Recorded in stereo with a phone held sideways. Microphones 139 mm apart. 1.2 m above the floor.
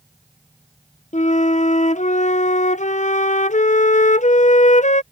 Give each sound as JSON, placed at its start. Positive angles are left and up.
{"t": 1.1, "sound": "a flute", "side_deg": 60}